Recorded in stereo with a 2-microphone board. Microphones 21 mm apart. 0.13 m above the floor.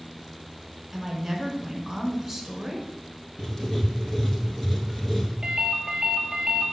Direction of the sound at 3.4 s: 25° left (ahead or behind).